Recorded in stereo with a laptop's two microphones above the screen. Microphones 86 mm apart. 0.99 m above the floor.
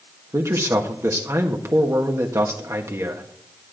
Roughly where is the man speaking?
Right.